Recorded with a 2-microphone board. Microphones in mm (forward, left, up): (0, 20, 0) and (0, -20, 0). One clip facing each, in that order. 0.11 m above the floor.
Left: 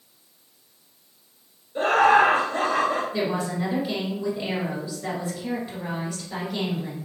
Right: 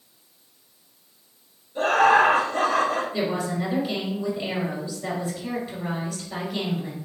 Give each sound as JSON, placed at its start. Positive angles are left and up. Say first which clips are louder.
{"t": 1.8, "sound": "laughter", "louder": "even", "side_deg": 40, "distance_m": 1.5}
{"t": 3.1, "sound": "a woman speaking", "louder": "even", "side_deg": 5, "distance_m": 1.8}